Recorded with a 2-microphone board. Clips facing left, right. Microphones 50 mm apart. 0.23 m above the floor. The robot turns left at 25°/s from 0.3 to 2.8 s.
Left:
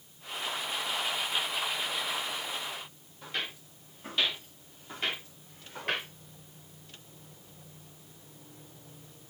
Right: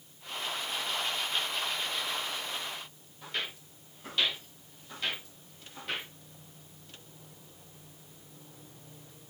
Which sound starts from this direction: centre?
Footsteps, at 3.2 s.